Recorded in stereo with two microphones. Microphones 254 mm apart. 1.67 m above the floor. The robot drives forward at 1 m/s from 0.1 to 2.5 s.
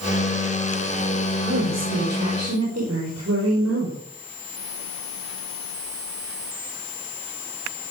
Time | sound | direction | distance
1.4 | a woman speaking | 85° right | 5 m